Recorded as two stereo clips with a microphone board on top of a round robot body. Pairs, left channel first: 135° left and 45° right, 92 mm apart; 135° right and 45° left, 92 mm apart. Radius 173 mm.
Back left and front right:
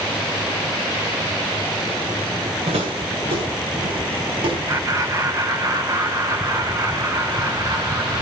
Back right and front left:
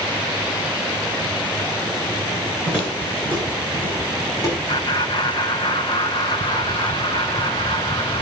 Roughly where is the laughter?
Right.